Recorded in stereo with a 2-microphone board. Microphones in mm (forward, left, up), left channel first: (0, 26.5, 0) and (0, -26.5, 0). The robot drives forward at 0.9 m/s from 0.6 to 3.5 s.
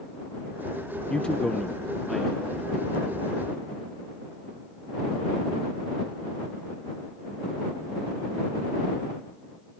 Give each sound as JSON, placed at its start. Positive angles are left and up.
{"t": 1.1, "sound": "a man speaking", "side_deg": 15, "distance_m": 0.6}